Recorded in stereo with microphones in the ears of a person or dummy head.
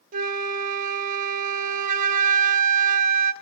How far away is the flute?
About 0.6 m.